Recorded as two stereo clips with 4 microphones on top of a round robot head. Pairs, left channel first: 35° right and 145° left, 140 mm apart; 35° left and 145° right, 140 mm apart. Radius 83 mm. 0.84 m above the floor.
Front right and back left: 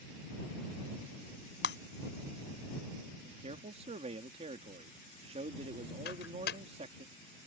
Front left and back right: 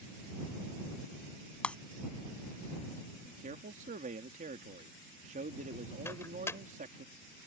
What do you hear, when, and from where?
1.6 s breaking glass: 45° right
3.2 s a man speaking: 170° right
6.0 s a microwave: 35° right